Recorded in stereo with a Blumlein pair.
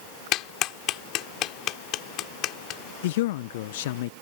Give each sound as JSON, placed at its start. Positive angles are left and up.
{"t": 0.3, "sound": "a clap", "azimuth_deg": 35}
{"t": 3.0, "sound": "a man speaking", "azimuth_deg": 55}